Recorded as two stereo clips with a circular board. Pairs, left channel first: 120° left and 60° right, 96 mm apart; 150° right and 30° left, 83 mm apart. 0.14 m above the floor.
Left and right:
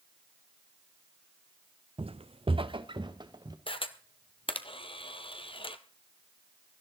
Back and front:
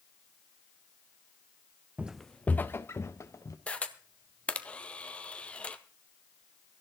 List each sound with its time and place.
2.0 s footsteps: 45° right, 0.5 m; by 3.6 s 100° right, 1.6 m
3.7 s a camera shutter: 135° left, 1.0 m